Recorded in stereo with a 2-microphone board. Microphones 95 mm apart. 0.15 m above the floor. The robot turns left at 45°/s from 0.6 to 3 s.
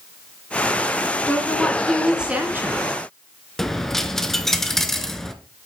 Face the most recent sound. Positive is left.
turn(degrees=5)  # may be behind; listen again after turning